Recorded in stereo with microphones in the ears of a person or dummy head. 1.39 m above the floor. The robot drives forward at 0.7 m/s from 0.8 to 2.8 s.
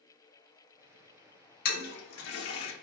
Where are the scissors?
I don't hear scissors.